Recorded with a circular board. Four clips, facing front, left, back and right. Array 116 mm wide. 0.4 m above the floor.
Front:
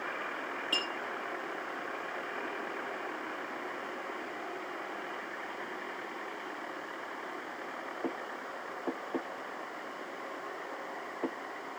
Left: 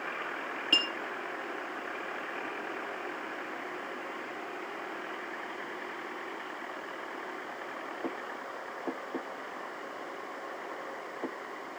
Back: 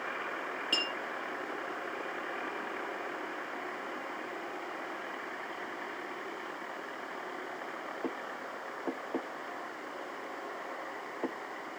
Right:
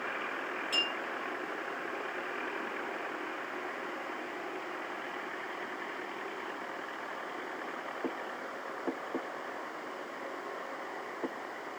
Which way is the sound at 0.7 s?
115° left.